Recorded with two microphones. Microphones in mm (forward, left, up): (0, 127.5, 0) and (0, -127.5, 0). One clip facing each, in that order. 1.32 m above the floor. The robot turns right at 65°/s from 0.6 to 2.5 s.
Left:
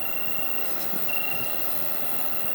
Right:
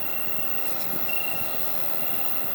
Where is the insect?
Straight behind, 1.0 m; by 2.6 s 55° right, 1.0 m.